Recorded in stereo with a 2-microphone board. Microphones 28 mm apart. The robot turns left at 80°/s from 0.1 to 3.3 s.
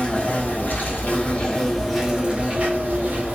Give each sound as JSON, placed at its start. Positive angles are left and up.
{"t": 0.0, "sound": "an insect", "azimuth_deg": 145, "distance_m": 1.3}